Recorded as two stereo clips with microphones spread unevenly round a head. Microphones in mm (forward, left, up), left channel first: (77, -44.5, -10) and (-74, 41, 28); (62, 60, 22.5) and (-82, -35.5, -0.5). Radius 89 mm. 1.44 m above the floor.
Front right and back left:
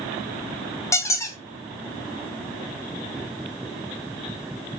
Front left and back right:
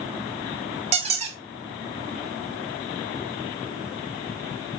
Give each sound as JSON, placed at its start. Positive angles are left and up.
{"t": 0.9, "sound": "a squeak", "azimuth_deg": -110, "distance_m": 0.5}